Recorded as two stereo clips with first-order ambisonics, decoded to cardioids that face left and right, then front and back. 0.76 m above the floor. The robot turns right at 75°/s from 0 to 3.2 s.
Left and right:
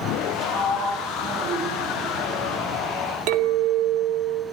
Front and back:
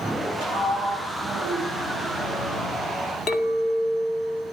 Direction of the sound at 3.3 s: 65° right.